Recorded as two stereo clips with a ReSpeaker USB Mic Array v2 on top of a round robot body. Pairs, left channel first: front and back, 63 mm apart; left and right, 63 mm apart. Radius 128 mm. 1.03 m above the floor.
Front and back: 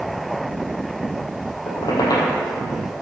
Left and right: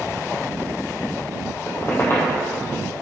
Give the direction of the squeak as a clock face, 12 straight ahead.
11 o'clock.